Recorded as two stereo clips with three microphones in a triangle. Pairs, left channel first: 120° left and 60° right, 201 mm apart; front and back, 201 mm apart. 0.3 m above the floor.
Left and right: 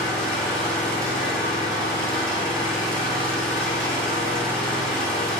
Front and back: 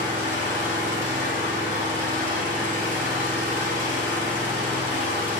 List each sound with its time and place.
0.0 s an engine running: 155° right, 1.4 m